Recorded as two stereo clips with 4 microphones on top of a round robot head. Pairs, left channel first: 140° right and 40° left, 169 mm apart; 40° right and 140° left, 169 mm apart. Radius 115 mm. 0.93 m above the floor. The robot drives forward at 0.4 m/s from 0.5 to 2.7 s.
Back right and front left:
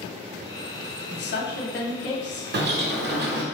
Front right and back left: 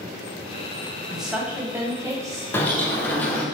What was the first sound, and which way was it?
A woman speaking, 130° right.